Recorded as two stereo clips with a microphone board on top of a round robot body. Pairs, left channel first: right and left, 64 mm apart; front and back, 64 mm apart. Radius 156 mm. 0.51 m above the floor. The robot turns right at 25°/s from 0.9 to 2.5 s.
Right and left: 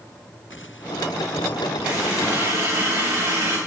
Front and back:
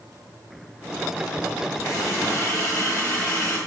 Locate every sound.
1.8 s a running tap: 20° left, 7.5 m; by 3.6 s 35° left, 7.5 m